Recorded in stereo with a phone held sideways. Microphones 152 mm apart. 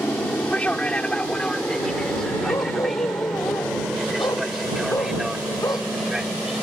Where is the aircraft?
10° left (ahead or behind); by 6.6 s 5° right (ahead or behind).